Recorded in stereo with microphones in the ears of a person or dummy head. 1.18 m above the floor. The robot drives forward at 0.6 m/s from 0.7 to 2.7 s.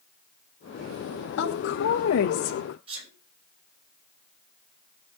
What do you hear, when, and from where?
1.4 s a woman speaking: 70° left (ahead or behind), 1.4 m; by 2.8 s 65° left (ahead or behind), 1.5 m
2.9 s a sneeze: 25° right (ahead or behind), 8 m